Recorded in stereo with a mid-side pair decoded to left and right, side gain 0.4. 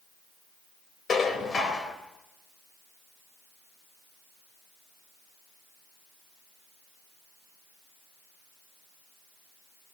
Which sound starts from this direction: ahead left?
Dishes clattering, at 1.1 s.